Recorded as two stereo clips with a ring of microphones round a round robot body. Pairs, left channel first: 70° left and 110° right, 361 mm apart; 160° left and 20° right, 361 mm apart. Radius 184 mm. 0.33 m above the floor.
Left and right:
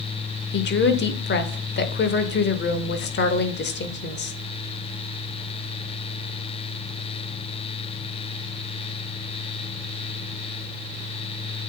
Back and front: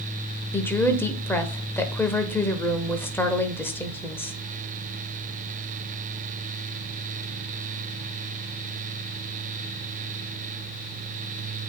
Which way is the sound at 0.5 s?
80° left.